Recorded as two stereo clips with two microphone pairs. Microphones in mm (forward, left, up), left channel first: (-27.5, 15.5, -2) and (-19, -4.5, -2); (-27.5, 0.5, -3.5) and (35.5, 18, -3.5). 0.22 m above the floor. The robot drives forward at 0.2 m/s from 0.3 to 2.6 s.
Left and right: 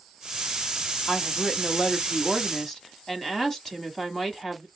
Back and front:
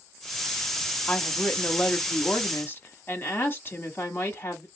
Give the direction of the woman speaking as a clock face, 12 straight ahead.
7 o'clock.